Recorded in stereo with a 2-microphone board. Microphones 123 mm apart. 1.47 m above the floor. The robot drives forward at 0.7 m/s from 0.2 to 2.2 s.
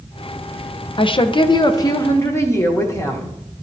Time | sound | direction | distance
1.0 | a woman speaking | 40° left (ahead or behind) | 0.5 m